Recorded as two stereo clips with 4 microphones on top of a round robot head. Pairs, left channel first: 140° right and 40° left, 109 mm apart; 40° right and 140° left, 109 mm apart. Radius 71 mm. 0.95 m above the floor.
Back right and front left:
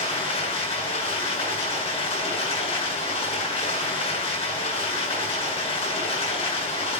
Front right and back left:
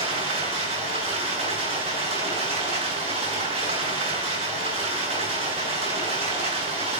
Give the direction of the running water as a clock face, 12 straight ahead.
6 o'clock.